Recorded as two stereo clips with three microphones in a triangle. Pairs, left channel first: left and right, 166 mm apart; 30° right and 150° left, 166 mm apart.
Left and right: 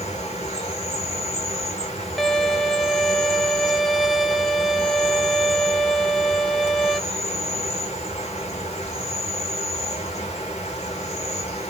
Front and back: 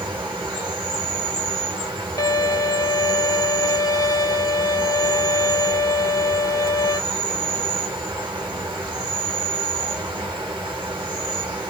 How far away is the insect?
About 1.9 m.